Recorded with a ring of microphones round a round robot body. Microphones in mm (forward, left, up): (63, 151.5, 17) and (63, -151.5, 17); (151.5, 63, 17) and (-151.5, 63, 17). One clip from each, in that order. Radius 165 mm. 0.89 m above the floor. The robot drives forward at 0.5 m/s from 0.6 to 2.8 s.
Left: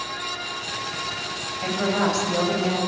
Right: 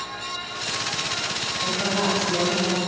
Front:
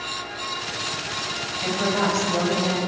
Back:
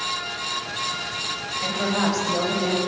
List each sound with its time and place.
1.6 s a woman speaking: 115° left, 6 m; by 2.8 s 120° left, 6.5 m